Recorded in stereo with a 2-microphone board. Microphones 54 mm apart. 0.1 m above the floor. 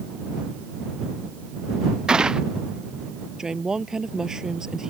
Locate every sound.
2.1 s a gunshot: 15° right (ahead or behind)
3.4 s a woman speaking: 10° right (ahead or behind)